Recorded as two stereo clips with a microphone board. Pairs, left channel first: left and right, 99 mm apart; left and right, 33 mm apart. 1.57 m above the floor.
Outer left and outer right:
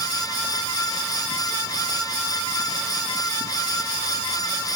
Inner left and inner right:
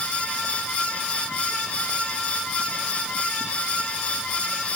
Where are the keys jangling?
No keys jangling in this recording.